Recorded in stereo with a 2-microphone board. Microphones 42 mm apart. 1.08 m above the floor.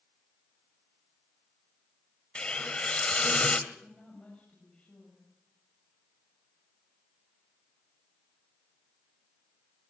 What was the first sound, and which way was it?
A hiss, 25° left (ahead or behind).